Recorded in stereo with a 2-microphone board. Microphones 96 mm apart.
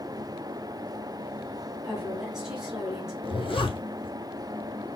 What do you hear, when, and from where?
1.8 s a woman speaking: 5° right (ahead or behind), 1.7 m
3.2 s a zipper: 60° left (ahead or behind), 1.2 m